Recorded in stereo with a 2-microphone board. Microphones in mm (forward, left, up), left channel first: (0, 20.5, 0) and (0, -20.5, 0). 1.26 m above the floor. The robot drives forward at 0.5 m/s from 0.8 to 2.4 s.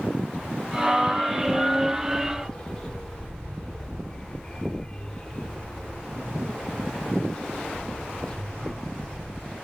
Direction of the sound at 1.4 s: 20° left (ahead or behind).